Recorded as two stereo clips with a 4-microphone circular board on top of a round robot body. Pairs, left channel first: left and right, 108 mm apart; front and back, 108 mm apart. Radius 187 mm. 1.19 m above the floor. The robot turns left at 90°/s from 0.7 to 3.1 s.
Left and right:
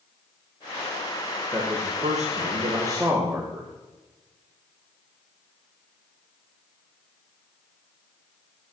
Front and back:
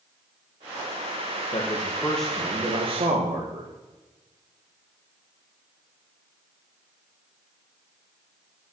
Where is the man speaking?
25° right, 1.8 m; by 3.7 s 165° right, 1.8 m.